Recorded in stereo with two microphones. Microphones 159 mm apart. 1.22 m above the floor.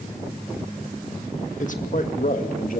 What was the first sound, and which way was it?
A man speaking, 50° left (ahead or behind).